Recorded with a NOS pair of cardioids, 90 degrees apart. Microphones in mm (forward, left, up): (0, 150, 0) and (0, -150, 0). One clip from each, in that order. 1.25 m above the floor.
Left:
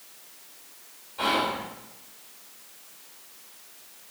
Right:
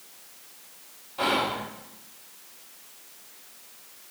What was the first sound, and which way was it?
Whispering, 20° right.